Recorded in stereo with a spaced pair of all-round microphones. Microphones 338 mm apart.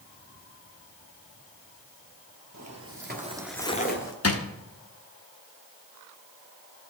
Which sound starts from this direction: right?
Footsteps, at 2.5 s.